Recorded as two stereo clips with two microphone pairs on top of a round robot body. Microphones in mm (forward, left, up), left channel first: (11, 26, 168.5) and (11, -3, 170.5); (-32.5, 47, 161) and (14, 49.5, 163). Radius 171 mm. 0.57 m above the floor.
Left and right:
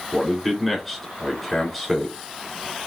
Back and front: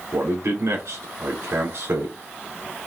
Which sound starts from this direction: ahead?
A man speaking, at 0.1 s.